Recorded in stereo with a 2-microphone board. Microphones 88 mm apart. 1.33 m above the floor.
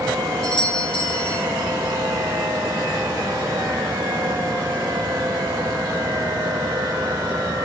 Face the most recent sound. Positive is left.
turn(degrees=70)  # may be behind; listen again after turning